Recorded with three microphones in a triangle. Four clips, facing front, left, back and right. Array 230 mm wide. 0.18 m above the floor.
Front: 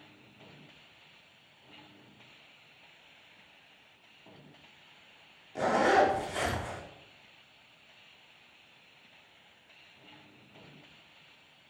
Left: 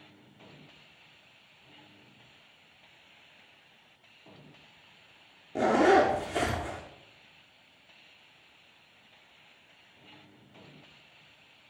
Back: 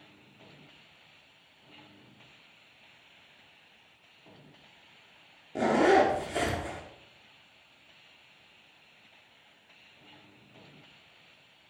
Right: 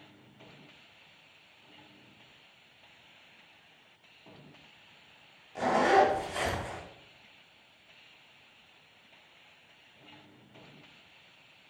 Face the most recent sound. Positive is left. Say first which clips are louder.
# left 2 dB, back 2 dB
turn(degrees=125)